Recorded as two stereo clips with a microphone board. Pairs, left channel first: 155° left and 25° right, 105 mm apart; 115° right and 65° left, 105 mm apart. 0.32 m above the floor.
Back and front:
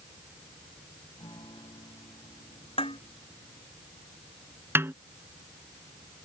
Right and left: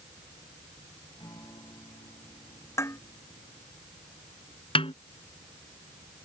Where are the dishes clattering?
175° right.